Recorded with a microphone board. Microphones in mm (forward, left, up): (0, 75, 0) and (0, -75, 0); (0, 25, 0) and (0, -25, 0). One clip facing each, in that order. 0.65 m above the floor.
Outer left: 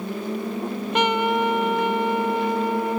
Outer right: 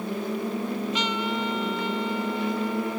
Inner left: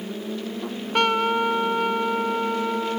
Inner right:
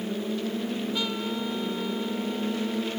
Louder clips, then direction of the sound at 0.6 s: Outer left 5 dB, inner left 7 dB; 60° left (ahead or behind).